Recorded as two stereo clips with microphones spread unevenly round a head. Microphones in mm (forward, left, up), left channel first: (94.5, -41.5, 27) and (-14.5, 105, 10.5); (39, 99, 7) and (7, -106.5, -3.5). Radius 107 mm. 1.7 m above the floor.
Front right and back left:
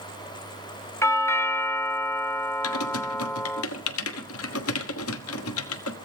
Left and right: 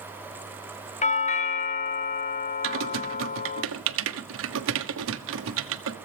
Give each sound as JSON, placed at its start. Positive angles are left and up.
{"t": 1.0, "sound": "a doorbell", "azimuth_deg": 25, "distance_m": 1.4}
{"t": 2.6, "sound": "typing on a keyboard", "azimuth_deg": -70, "distance_m": 1.2}